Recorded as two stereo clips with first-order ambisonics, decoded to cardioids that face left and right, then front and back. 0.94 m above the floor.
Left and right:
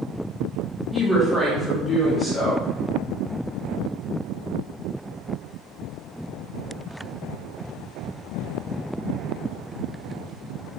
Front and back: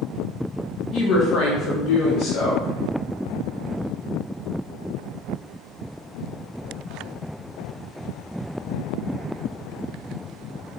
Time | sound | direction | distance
0.9 | a woman speaking | 10° left | 0.6 m